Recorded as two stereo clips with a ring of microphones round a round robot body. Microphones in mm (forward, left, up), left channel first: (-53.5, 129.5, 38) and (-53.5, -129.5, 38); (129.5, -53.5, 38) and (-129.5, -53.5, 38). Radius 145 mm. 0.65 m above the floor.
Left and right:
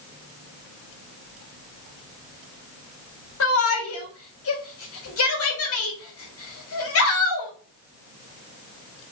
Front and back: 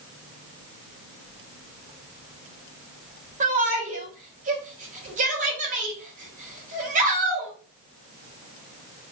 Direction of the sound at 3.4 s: 120° left.